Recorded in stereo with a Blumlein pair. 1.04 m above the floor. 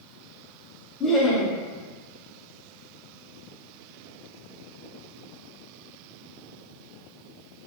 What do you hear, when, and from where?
1.0 s laughter: 15° left, 0.8 m